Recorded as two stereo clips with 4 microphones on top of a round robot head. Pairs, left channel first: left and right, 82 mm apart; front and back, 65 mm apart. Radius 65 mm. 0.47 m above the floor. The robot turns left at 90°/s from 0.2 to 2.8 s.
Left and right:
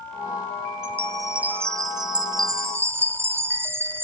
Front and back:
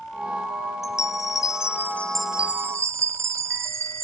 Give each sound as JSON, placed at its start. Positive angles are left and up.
{"t": 0.8, "sound": "a chime", "azimuth_deg": 35}